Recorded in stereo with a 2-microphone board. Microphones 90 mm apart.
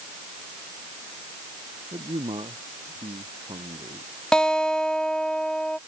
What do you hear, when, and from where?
1.9 s a man speaking: 75° right (ahead or behind)
4.3 s a guitar: 10° left (ahead or behind)